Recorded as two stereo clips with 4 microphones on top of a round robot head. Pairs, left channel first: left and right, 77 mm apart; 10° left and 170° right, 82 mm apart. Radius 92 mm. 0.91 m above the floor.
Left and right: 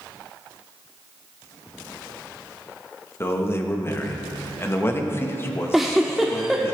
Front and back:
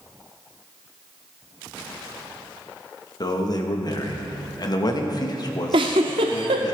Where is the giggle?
Straight behind, 0.6 m.